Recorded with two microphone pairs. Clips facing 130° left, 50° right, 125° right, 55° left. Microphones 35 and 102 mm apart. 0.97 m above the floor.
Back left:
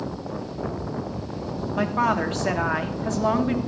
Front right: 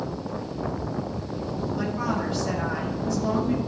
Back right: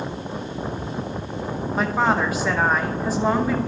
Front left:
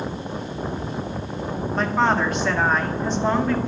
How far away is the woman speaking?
About 0.9 m.